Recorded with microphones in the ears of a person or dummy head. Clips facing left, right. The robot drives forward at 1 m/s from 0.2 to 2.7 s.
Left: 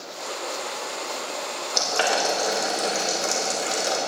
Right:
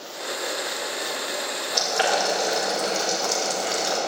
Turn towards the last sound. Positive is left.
turn(degrees=55)  # may be behind; listen again after turning